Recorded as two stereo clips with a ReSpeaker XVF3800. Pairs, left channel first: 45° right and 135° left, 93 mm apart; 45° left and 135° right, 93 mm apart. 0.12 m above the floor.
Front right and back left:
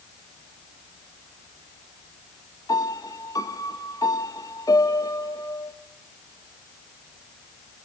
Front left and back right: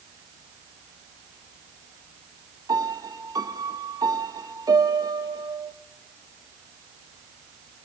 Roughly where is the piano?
Right.